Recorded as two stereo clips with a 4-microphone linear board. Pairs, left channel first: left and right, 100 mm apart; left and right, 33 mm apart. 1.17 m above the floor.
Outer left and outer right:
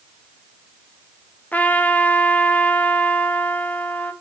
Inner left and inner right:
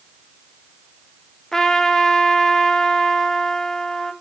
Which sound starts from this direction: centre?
A trumpet, at 1.5 s.